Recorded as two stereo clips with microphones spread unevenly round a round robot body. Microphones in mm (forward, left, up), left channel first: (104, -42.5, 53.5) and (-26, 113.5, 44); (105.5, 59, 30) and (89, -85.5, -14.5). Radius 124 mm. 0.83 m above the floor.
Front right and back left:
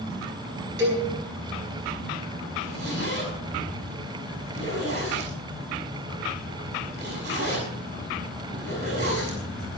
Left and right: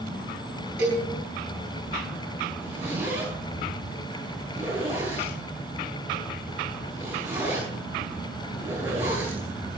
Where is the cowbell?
175° left, 4.5 m.